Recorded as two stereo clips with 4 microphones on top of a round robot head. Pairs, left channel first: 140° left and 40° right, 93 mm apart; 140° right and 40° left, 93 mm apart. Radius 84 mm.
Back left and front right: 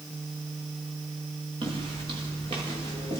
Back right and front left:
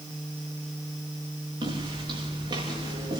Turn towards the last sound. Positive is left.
turn(degrees=-10)